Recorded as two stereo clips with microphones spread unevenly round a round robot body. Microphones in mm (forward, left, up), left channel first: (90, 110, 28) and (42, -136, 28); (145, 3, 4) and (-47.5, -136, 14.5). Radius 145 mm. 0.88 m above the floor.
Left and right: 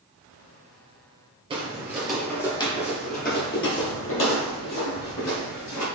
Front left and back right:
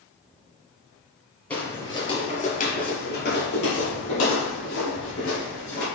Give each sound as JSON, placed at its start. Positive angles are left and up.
{"t": 1.5, "sound": "footsteps", "azimuth_deg": -45, "distance_m": 1.0}